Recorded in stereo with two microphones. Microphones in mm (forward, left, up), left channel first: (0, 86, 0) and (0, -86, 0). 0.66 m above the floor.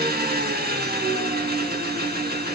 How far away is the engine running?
About 0.8 m.